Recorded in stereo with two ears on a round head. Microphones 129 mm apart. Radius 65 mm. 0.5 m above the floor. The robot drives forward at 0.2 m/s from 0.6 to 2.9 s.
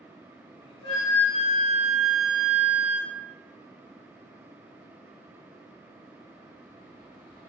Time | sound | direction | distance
0.8 | a flute | 35° left (ahead or behind) | 1.1 m